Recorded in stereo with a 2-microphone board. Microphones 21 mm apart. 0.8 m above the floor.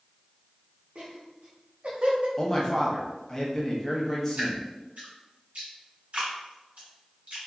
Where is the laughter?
55° right (ahead or behind), 1.1 m; by 2.3 s 45° right (ahead or behind), 0.7 m.